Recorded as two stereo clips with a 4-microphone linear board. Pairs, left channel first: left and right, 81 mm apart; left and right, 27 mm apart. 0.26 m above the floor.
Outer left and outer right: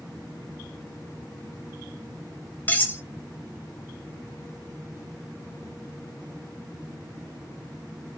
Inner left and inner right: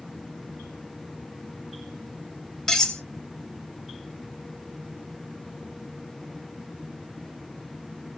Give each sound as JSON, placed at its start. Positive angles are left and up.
{"t": 2.7, "sound": "cutlery clinking", "side_deg": 25, "distance_m": 0.7}